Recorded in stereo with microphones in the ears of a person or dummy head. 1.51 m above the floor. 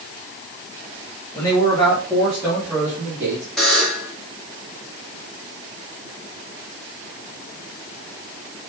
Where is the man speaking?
15° left (ahead or behind), 3 m; by 3.5 s 15° right (ahead or behind), 3 m.